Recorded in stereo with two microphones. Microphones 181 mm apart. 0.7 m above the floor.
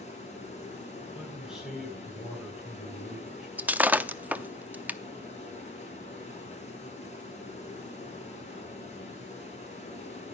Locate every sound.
0.0 s running water: 40° left (ahead or behind), 5 m
1.1 s a man speaking: 5° right (ahead or behind), 9.5 m
3.6 s breaking glass: 10° right (ahead or behind), 0.6 m